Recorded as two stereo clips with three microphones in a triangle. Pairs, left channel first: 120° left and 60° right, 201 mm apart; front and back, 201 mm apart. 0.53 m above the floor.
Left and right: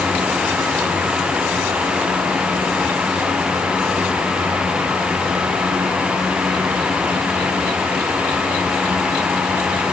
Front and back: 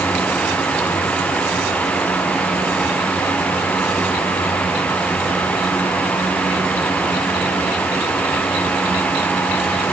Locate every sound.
Only background noise.